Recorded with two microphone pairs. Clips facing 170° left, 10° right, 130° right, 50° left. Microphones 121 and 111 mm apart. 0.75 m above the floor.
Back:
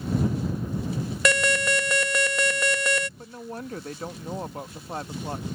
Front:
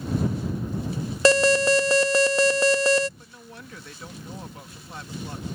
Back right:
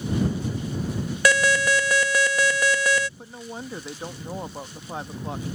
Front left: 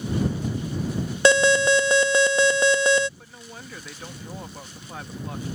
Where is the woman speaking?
175° left.